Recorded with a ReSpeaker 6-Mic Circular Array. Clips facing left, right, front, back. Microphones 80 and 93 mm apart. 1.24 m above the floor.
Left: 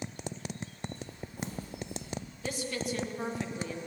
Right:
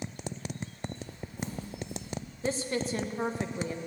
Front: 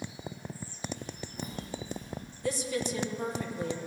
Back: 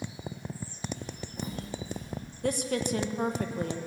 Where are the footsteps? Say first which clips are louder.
Right 1 dB, back 1 dB; 170° left, 5.5 m; by 2.1 s 165° left, 6 m.